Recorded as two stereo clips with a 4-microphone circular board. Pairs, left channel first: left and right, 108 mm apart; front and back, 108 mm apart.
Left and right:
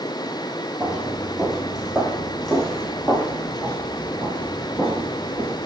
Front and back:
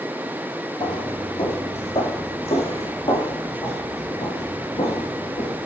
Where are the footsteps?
5° right, 3.5 m; by 5.6 s 15° left, 6.5 m.